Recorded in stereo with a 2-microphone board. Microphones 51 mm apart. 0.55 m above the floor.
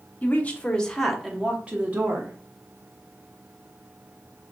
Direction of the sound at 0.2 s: 35° left (ahead or behind).